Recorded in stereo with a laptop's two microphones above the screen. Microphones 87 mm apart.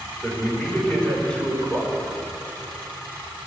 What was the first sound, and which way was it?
A man speaking, 15° left (ahead or behind).